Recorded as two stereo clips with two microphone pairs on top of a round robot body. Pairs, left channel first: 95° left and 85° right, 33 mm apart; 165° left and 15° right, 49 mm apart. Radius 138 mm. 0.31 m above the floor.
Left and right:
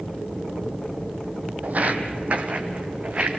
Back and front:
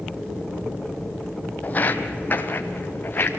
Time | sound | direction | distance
1.6 | footsteps | 135° right | 0.9 m